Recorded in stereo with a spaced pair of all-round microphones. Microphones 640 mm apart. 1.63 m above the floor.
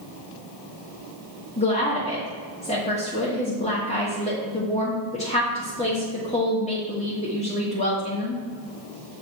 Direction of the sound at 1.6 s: 10° left (ahead or behind).